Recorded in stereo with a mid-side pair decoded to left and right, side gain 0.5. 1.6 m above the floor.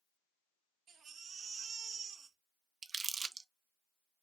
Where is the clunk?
No clunk in this recording.